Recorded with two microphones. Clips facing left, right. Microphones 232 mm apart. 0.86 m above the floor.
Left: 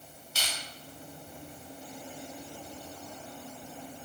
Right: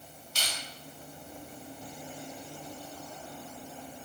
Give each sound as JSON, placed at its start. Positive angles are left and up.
{"t": 0.3, "sound": "crushing", "side_deg": 5, "distance_m": 1.6}